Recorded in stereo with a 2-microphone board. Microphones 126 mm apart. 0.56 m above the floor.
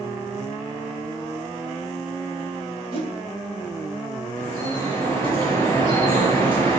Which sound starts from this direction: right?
A whoosh, at 2.9 s.